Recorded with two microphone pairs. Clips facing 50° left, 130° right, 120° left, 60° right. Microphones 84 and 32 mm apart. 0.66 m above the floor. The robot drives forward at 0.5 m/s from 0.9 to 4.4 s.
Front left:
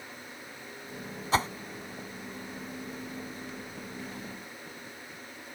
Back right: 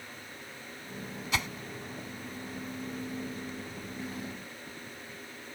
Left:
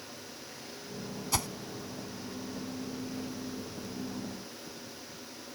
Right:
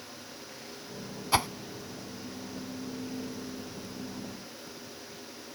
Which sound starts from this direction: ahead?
A whoosh, at 1.3 s.